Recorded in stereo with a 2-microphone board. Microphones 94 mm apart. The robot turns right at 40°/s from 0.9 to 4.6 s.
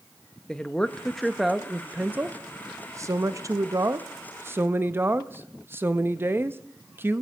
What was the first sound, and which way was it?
A woman speaking, 165° left.